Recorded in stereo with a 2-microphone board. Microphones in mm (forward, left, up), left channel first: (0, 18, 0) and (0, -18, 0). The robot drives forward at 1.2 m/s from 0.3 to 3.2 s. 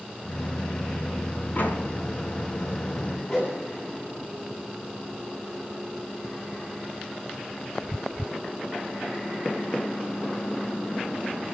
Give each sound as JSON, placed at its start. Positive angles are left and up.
{"t": 1.6, "sound": "a door slam", "side_deg": 60, "distance_m": 5.5}
{"t": 3.3, "sound": "a whoosh", "side_deg": 30, "distance_m": 9.5}